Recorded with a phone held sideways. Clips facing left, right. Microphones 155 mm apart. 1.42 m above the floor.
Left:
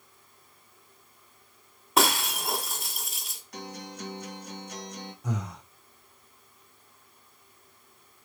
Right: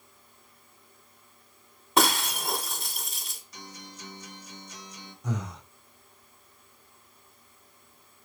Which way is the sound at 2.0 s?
Centre (ahead or behind).